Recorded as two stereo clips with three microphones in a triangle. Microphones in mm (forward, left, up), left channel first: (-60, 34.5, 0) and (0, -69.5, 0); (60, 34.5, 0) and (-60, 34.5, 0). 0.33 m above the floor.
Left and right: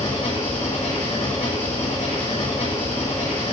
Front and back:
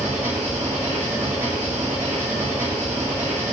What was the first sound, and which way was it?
An engine running, 105° left.